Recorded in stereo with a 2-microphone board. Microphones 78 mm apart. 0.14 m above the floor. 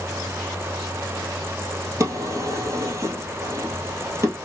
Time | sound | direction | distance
2.0 | a drawer | 35° right (ahead or behind) | 1.5 m